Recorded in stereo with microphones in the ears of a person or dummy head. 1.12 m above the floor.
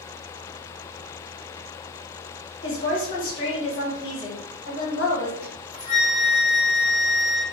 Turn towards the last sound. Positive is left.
turn(degrees=30)  # may be behind; listen again after turning